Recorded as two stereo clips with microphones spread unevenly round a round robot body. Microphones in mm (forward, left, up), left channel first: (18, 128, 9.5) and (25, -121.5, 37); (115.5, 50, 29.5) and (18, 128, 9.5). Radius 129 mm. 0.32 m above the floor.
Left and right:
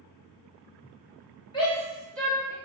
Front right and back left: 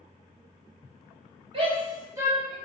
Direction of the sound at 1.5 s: 150° left.